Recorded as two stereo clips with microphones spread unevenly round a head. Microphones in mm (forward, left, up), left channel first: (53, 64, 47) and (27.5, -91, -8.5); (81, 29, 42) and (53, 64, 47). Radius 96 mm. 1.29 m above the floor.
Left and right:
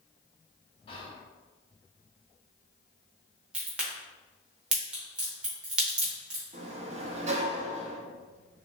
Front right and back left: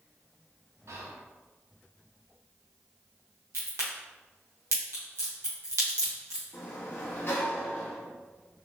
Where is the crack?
165° left, 0.9 m.